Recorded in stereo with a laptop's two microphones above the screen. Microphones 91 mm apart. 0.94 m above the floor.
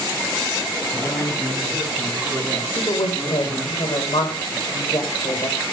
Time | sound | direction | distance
0.9 | a man speaking | 30° left (ahead or behind) | 8 m
2.8 | a woman speaking | 75° left (ahead or behind) | 5 m